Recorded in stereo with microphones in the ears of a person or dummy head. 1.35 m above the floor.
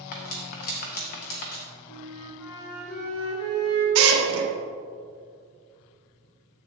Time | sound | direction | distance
0.1 | cutlery clinking | 50° left (ahead or behind) | 0.9 m
1.9 | a flute | 85° left | 2 m
4.0 | a drill | 85° right | 1.4 m